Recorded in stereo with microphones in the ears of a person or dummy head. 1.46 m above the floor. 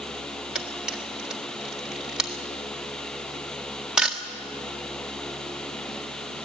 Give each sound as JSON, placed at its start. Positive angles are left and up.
{"t": 0.6, "sound": "a camera shutter", "side_deg": -5, "distance_m": 1.6}